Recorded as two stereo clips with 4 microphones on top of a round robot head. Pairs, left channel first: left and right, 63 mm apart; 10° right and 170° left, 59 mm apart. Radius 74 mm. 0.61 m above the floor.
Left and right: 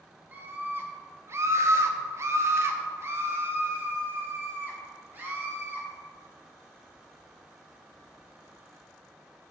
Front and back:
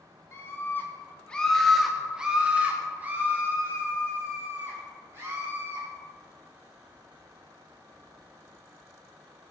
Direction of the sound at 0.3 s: 35° right.